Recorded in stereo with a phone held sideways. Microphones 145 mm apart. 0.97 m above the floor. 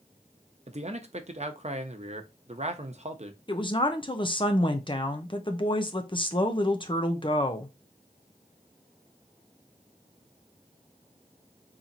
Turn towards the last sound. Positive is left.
turn(degrees=35)  # may be behind; listen again after turning